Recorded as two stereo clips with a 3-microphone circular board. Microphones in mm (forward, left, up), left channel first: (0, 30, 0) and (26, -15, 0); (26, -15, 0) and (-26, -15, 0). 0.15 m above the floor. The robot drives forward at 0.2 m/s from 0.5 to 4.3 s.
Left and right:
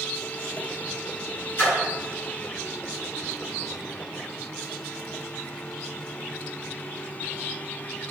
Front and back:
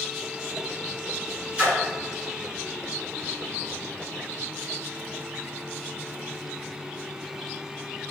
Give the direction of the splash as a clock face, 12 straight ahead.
8 o'clock.